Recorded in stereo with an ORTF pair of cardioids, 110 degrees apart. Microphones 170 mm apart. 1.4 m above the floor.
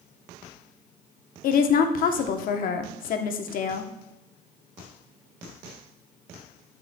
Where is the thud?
I don't hear a thud.